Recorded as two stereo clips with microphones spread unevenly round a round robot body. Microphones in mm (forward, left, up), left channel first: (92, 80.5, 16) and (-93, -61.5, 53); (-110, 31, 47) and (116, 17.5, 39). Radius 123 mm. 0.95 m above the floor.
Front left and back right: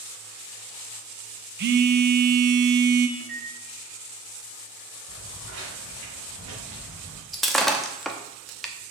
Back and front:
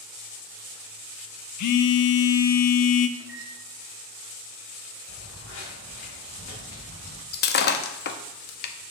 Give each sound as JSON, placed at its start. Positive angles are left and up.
{"t": 1.6, "sound": "a phone buzzing", "azimuth_deg": 175, "distance_m": 0.6}
{"t": 3.2, "sound": "a microwave", "azimuth_deg": -90, "distance_m": 4.5}
{"t": 5.1, "sound": "footsteps", "azimuth_deg": -150, "distance_m": 4.0}
{"t": 7.3, "sound": "breaking glass", "azimuth_deg": 130, "distance_m": 0.7}